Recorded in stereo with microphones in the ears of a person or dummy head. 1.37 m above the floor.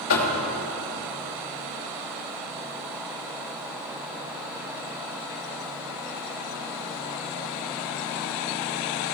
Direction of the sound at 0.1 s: 75° left (ahead or behind).